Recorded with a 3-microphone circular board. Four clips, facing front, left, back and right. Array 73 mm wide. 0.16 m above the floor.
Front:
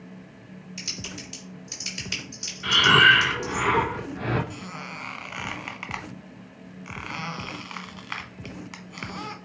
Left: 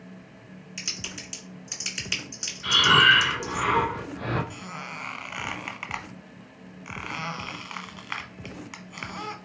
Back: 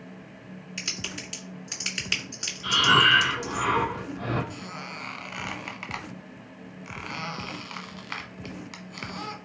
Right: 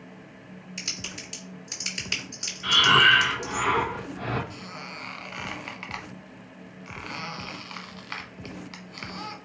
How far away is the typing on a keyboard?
About 1.8 m.